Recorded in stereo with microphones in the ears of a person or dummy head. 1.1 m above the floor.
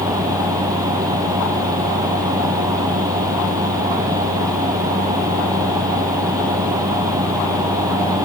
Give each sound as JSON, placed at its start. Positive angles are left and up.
{"t": 0.0, "sound": "a fan", "side_deg": -15}